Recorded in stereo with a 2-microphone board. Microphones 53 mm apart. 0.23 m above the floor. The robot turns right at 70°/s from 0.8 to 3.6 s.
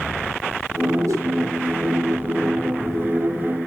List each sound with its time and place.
1.1 s a whoosh: 70° right (ahead or behind), 3 m; by 1.3 s 65° right (ahead or behind), 3 m